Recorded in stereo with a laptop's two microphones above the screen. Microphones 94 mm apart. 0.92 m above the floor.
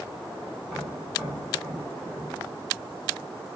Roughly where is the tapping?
Centre.